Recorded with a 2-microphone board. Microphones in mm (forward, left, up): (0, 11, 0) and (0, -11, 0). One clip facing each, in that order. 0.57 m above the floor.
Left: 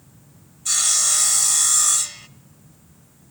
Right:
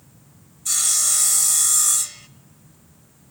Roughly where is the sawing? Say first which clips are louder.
Left 2 dB; centre.